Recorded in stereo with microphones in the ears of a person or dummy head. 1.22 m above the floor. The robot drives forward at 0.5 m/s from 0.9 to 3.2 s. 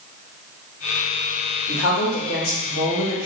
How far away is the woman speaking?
About 1.7 m.